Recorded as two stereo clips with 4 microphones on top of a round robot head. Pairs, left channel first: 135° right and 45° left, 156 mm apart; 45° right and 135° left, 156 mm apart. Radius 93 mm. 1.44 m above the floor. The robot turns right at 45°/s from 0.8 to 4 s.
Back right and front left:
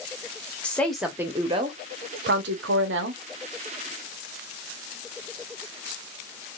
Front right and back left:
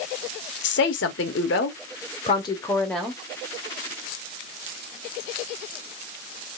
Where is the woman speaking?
55° right, 0.9 m; by 3.2 s 55° left, 0.9 m.